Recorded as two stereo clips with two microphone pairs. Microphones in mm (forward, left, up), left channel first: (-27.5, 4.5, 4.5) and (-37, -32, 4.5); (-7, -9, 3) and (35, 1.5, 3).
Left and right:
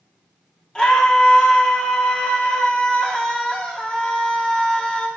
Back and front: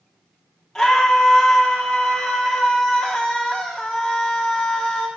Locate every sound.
0.8 s a scream: 130° left, 1.0 m